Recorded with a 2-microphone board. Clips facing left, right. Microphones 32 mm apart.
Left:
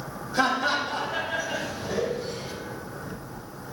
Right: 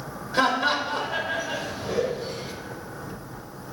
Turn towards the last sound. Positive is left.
turn(degrees=-25)  # may be behind; listen again after turning